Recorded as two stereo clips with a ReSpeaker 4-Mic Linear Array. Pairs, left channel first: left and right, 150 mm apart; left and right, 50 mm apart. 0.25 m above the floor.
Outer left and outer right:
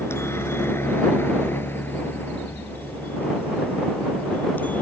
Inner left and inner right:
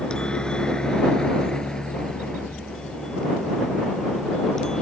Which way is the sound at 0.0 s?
15° left (ahead or behind).